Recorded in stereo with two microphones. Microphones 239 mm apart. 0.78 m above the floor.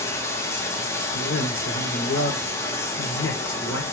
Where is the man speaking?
60° left (ahead or behind), 2.5 m.